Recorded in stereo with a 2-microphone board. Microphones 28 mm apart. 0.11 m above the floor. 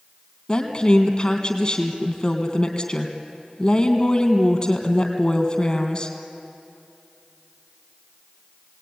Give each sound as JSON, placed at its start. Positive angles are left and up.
{"t": 0.5, "sound": "a woman speaking", "side_deg": 35, "distance_m": 3.5}